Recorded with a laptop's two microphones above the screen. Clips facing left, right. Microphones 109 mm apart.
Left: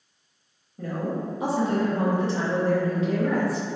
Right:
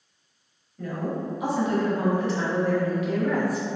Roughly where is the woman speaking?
Left.